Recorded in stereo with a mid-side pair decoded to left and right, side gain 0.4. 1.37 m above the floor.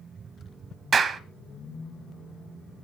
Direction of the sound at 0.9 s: 55° right.